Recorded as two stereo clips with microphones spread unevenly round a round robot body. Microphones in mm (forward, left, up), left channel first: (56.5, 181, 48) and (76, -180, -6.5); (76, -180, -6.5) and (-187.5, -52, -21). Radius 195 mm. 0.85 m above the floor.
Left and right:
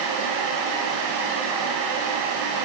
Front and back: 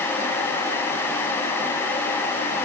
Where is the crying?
I don't hear crying.